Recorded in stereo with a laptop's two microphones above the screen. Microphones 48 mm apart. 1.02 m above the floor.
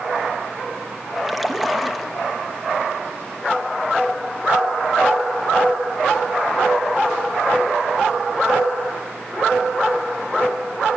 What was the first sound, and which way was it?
A splash, centre (ahead or behind).